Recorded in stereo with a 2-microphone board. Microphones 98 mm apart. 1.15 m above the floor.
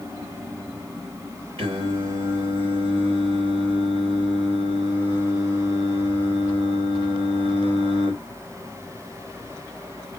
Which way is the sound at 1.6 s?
70° right (ahead or behind).